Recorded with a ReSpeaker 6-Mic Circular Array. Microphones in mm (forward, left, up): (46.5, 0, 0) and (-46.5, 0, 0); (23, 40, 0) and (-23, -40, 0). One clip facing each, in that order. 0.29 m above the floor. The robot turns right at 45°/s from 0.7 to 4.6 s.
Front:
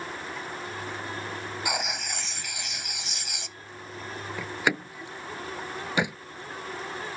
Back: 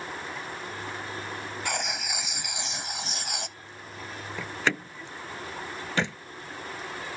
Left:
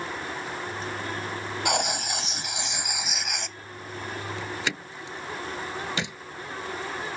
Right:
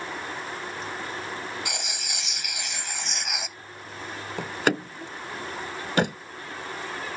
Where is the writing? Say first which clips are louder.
Front 1 dB, left 9 dB; 75° left; by 3.6 s 165° left.